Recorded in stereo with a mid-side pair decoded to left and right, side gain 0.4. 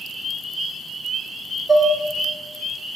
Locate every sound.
1.7 s dishes clattering: 30° right, 1.9 m